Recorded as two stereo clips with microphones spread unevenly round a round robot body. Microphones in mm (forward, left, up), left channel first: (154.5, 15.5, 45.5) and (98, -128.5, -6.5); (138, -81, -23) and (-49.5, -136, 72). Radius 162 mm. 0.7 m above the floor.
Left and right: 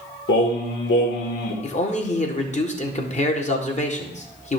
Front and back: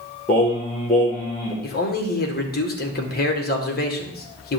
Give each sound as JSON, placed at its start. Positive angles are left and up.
{"t": 0.3, "sound": "singing", "azimuth_deg": 90, "distance_m": 2.0}
{"t": 1.6, "sound": "a man speaking", "azimuth_deg": 20, "distance_m": 1.9}